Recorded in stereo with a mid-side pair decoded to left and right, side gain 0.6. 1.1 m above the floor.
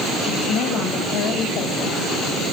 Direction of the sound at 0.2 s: 70° left.